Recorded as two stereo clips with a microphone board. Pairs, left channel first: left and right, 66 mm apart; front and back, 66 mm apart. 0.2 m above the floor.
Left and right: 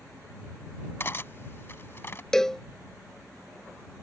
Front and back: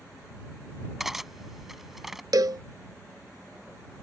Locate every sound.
1.0 s cutlery clinking: 95° left
2.3 s a cowbell: 170° left